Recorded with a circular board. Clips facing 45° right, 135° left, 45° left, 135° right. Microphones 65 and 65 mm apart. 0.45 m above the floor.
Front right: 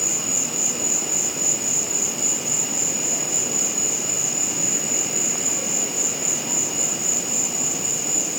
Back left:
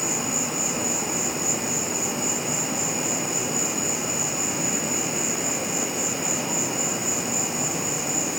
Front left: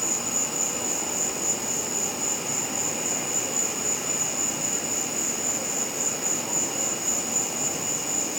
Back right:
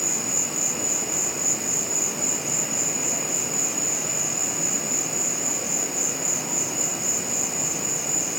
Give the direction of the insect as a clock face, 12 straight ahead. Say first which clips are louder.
Back left 3 dB, even; 9 o'clock.